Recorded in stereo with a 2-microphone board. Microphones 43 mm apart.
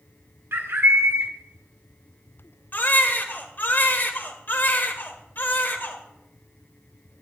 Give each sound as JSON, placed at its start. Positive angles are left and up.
{"t": 0.5, "sound": "a bird", "side_deg": -60, "distance_m": 1.5}
{"t": 2.7, "sound": "a baby crying", "side_deg": 55, "distance_m": 1.6}